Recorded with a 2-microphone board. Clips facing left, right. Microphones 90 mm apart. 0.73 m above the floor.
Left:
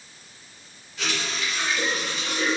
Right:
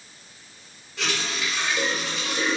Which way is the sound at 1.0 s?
75° right (ahead or behind).